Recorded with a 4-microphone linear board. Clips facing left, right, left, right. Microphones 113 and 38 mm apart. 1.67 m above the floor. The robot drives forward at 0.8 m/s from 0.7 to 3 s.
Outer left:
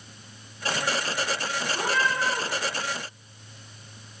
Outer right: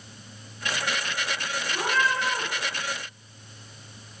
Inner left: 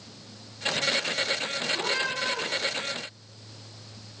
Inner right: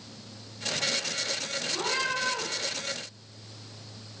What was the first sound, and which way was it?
A cat meowing, 40° right (ahead or behind).